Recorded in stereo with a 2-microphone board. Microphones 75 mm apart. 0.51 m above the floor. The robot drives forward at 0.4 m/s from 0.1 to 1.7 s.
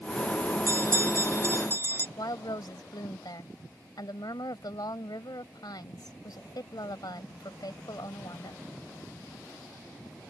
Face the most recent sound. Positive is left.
turn(degrees=70)  # may be behind; listen again after turning